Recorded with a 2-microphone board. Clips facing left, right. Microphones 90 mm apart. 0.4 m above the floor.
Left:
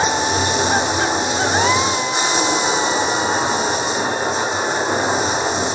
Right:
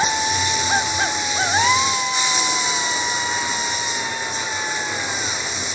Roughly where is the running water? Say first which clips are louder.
Left 3 dB; left.